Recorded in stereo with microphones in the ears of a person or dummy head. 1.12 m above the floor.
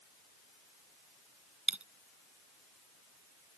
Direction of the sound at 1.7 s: Centre (ahead or behind).